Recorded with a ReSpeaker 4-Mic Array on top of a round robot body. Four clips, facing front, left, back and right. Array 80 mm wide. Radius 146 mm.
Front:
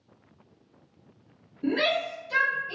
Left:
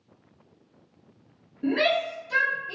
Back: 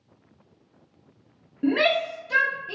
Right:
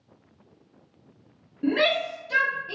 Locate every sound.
1.6 s a shout: 175° right, 1.8 m; by 2.8 s 155° right, 1.5 m